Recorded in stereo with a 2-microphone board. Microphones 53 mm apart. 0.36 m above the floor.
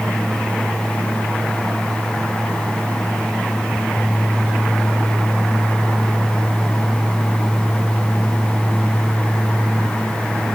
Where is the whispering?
I don't hear whispering.